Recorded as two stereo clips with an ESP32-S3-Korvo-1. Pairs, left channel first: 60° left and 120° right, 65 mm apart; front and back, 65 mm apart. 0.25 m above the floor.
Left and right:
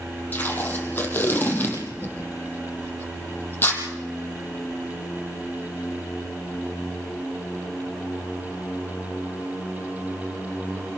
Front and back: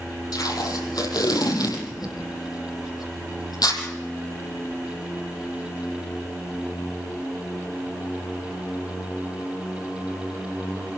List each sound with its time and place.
0.3 s tape being pulled: straight ahead, 6.5 m